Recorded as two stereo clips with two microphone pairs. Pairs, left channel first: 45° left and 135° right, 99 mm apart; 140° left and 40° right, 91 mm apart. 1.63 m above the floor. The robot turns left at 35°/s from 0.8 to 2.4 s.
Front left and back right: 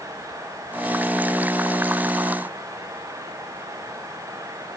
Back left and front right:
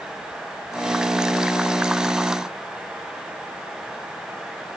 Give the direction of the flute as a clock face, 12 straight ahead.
I don't hear a flute.